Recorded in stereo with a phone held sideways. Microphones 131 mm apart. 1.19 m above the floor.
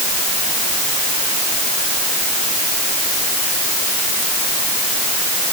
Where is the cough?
I don't hear a cough.